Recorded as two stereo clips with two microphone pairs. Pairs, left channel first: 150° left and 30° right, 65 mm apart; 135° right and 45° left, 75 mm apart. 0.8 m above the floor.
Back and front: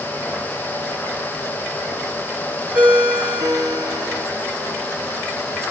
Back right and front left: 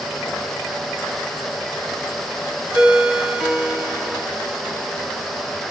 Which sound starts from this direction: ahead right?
A ringtone, at 2.7 s.